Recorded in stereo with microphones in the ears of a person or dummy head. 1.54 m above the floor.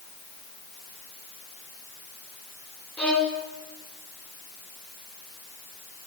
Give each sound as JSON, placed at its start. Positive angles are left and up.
{"t": 3.0, "sound": "a violin", "side_deg": 5, "distance_m": 4.5}